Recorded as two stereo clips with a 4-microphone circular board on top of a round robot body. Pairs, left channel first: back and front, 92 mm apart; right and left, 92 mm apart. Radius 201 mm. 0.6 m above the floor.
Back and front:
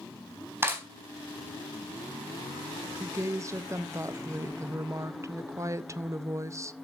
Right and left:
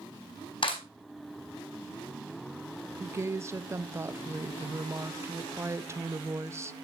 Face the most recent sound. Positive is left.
turn(degrees=40)